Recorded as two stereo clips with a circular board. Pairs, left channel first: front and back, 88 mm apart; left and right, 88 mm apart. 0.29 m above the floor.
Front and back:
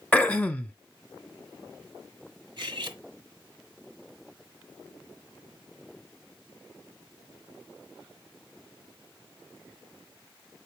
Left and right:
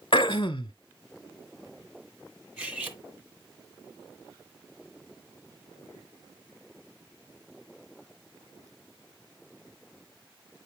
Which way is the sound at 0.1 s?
75° left.